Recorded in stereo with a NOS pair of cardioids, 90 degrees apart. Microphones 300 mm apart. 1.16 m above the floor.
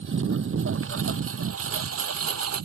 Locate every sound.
0.0 s a lawn mower: 40° right; by 2.7 s 50° right